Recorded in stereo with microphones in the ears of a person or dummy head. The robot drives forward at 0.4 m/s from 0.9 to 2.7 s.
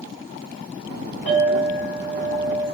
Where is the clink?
60° left (ahead or behind), 1.5 m; by 2.6 s 55° left (ahead or behind), 1.6 m.